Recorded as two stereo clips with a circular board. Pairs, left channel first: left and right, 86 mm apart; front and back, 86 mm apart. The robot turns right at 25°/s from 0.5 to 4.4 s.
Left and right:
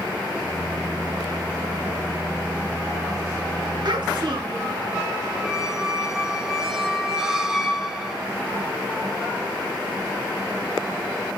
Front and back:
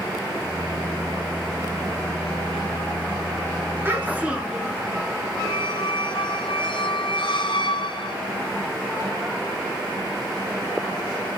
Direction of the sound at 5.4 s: 5° right.